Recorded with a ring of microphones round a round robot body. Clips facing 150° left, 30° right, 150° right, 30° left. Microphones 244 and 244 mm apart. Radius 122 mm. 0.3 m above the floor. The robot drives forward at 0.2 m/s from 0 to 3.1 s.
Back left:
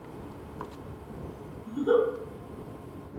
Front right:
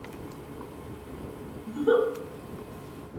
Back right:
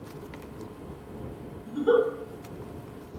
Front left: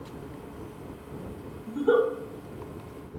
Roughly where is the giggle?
Right.